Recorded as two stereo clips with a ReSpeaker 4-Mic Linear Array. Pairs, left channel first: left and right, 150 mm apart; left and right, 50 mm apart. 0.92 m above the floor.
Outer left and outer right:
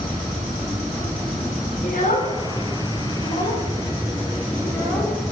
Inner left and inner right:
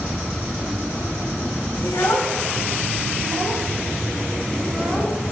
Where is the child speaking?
65° left (ahead or behind), 1.6 m; by 5.3 s 15° left (ahead or behind), 3 m.